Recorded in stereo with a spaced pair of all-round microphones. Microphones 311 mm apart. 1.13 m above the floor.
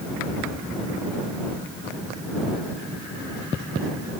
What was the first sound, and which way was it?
Only background noise.